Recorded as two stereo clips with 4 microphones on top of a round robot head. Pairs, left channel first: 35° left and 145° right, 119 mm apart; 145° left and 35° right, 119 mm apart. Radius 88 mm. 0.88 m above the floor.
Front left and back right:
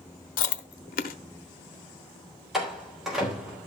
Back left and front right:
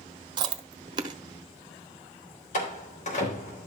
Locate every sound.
0.4 s chewing: 20° left, 0.8 m
2.5 s a door slam: 125° left, 3.5 m